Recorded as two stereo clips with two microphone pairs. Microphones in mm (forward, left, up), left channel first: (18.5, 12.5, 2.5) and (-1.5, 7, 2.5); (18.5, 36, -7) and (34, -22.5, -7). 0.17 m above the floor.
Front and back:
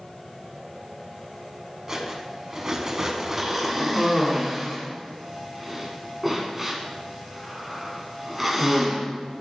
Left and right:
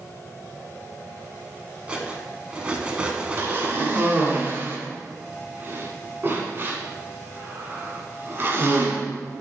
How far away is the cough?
About 1.7 m.